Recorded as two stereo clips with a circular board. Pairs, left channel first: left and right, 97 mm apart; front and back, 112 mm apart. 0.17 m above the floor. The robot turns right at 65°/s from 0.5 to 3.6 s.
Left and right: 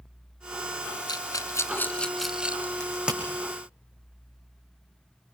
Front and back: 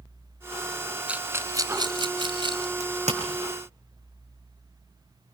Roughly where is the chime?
I don't hear a chime.